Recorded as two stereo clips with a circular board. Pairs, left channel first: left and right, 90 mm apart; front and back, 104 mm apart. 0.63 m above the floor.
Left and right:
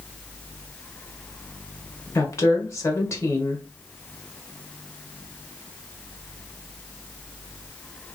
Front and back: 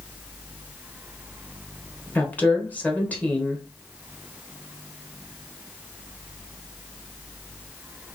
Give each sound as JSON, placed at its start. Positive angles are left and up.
{"t": 2.1, "sound": "a woman speaking", "azimuth_deg": 65, "distance_m": 0.9}